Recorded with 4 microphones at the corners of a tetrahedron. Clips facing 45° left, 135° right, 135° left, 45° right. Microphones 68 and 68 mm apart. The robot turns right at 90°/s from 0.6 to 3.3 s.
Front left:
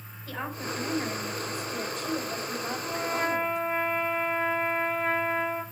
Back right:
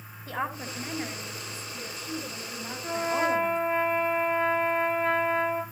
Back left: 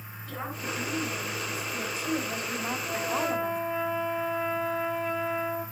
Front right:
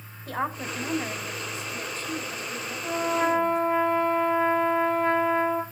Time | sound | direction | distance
0.3 | a woman speaking | 70° right | 4.5 m
2.8 | a trumpet | 85° right | 7.5 m